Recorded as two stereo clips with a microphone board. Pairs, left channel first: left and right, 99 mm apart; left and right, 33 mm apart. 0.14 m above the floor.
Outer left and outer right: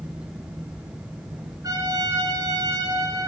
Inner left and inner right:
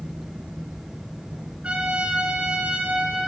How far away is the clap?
No clap in this recording.